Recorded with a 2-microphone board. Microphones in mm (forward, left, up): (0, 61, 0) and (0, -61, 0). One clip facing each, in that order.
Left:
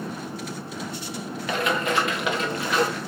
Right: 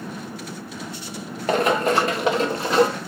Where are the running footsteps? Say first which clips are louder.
Right 6 dB; 45° right (ahead or behind), 1.6 m; by 3.0 s 30° right (ahead or behind), 2.5 m.